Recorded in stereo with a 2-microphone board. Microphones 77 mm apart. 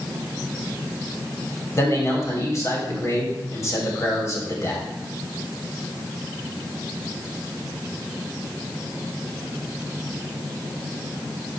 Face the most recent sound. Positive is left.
turn(degrees=40)  # may be behind; listen again after turning